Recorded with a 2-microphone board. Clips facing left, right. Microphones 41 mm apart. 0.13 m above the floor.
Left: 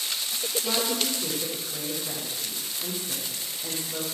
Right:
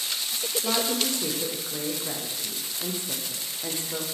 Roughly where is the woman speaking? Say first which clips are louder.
Right 2 dB; right.